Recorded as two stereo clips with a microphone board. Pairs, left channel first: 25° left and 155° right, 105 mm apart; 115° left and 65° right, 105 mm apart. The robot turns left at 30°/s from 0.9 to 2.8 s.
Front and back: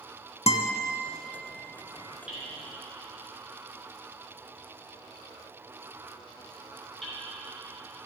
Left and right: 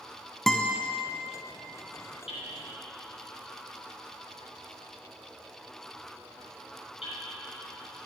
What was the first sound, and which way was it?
A guitar, 30° left.